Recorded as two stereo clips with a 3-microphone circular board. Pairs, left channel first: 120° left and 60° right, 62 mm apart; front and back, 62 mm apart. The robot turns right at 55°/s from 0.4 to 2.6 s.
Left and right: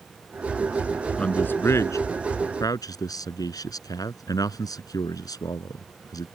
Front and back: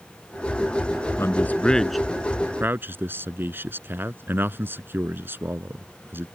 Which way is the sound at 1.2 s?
45° left.